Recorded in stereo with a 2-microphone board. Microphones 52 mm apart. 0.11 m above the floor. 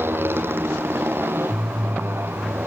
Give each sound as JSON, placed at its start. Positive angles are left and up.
{"t": 0.0, "sound": "a motorcycle", "side_deg": -55}